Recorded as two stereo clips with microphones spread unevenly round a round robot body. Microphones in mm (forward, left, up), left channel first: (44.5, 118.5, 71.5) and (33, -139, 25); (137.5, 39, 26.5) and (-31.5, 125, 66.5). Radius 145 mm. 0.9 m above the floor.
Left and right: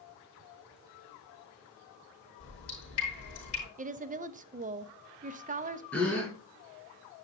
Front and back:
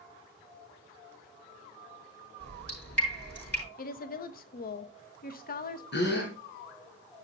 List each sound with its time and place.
2.4 s dripping: 55° left, 6.5 m
3.8 s a woman speaking: 45° right, 0.8 m
5.9 s a gasp: 5° left, 3 m